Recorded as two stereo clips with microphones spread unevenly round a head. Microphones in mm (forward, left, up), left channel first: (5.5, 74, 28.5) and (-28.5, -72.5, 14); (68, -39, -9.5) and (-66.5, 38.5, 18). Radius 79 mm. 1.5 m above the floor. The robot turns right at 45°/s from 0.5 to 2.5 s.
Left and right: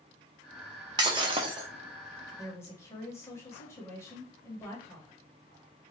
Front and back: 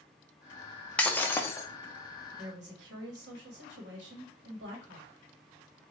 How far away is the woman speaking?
About 1.3 m.